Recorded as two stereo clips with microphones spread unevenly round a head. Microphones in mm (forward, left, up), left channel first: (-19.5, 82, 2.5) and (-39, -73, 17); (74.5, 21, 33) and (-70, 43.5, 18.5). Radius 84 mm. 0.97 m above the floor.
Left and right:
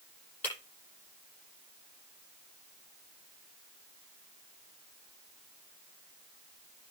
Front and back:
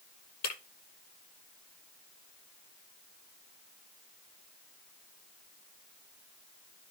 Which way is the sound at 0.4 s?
Straight ahead.